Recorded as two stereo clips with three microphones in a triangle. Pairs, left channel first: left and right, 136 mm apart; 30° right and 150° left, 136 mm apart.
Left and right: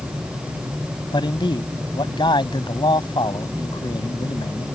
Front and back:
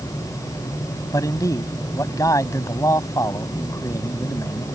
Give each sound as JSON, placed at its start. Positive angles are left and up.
{"t": 1.1, "sound": "a man speaking", "azimuth_deg": 35}